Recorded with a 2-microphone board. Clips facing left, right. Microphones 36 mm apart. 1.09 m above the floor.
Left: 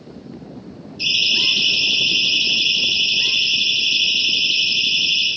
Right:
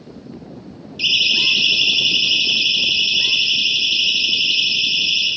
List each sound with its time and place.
1.0 s a siren: 75° right (ahead or behind), 5.5 m; by 5.3 s 55° right (ahead or behind), 11.5 m